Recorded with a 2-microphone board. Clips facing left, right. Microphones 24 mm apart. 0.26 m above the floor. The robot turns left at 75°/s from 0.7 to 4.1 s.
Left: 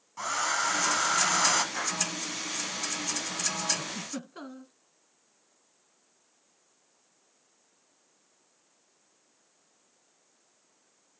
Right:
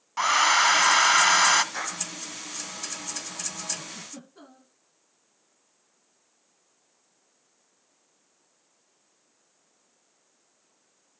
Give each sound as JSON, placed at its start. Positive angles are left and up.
{"t": 0.2, "sound": "a hair dryer", "azimuth_deg": -75, "distance_m": 0.9}
{"t": 1.7, "sound": "a clap", "side_deg": -15, "distance_m": 9.5}
{"t": 3.8, "sound": "a giggle", "side_deg": 35, "distance_m": 2.0}